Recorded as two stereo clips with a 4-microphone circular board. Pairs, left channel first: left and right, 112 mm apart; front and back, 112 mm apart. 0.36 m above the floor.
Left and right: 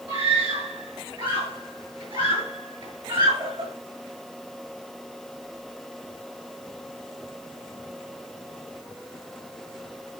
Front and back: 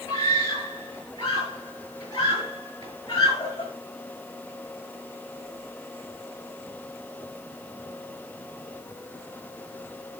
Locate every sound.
0.1 s a scream: 55° right, 7 m